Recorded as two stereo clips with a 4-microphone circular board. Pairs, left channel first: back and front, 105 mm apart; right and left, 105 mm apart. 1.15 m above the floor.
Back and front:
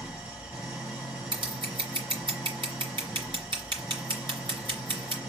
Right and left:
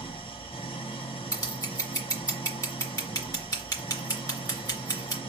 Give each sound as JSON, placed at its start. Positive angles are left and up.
{"t": 0.0, "sound": "an engine running", "azimuth_deg": -80, "distance_m": 1.8}
{"t": 1.3, "sound": "scissors", "azimuth_deg": -35, "distance_m": 3.0}